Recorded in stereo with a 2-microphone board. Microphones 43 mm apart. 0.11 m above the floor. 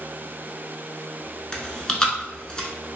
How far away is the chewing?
About 0.8 m.